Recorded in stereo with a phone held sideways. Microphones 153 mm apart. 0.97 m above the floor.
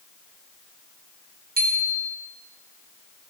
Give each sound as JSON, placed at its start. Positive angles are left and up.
{"t": 1.6, "sound": "a bicycle bell", "side_deg": -75, "distance_m": 3.5}